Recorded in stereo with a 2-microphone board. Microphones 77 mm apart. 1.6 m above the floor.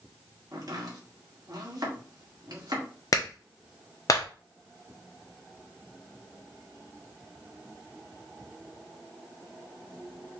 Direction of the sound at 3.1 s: 45° left (ahead or behind).